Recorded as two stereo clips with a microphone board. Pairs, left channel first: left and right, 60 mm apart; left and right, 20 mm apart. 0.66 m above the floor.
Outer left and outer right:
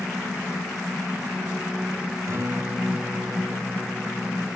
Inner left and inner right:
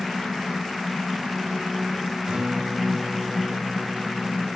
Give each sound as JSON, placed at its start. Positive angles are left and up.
{"t": 2.3, "sound": "a guitar", "side_deg": -55, "distance_m": 3.0}